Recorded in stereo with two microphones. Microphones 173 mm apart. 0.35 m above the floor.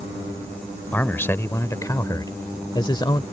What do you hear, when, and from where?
0.9 s a man speaking: 10° left (ahead or behind); by 3.2 s 25° left (ahead or behind)